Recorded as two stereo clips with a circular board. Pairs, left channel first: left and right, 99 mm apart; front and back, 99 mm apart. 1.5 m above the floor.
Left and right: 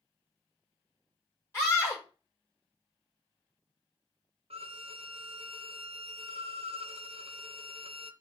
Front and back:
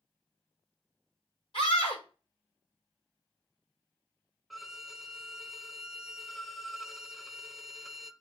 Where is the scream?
25° left, 5 m.